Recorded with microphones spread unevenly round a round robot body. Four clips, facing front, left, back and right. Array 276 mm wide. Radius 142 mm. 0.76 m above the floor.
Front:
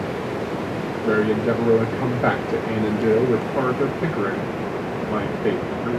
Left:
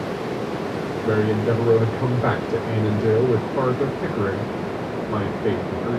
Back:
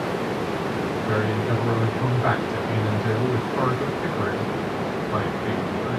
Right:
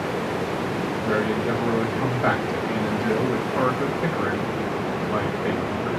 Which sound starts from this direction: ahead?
A man speaking, at 1.1 s.